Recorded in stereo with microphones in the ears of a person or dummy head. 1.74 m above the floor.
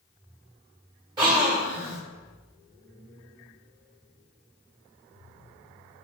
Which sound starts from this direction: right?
A gasp, at 1.2 s.